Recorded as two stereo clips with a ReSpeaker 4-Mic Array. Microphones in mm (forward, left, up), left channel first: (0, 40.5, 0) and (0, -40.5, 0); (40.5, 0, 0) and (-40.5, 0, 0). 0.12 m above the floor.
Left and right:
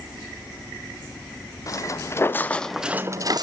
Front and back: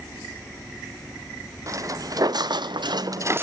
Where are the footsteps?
135° left, 1.6 m; by 3.4 s 120° right, 0.8 m.